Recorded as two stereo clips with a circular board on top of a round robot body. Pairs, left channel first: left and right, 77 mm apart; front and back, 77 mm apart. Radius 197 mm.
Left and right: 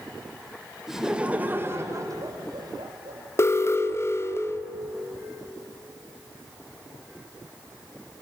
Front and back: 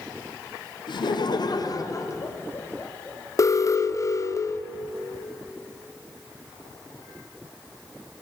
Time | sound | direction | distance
0.9 | laughter | 5° right | 2.5 m
3.4 | an alarm | 40° left | 1.6 m